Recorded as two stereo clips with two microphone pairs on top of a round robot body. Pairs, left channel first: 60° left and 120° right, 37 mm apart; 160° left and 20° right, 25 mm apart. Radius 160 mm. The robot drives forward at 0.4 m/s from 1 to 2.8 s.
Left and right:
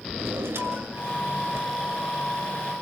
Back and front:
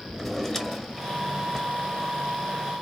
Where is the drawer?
120° right, 1.6 m; by 1.7 s 130° right, 1.8 m.